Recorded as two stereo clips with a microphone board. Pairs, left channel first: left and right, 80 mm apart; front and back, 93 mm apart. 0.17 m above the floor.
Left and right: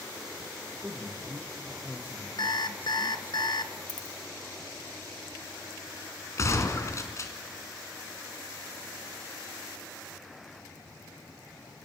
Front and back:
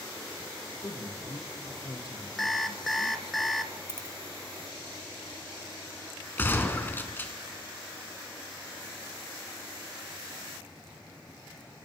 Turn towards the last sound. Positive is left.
turn(degrees=60)